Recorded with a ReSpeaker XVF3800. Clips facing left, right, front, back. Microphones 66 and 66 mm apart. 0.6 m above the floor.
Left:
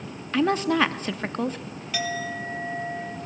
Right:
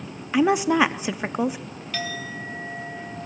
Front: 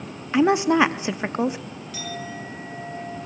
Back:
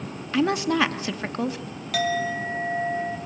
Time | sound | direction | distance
0.3 | a woman speaking | 35° right | 0.6 m
1.9 | a clink | 165° left | 3 m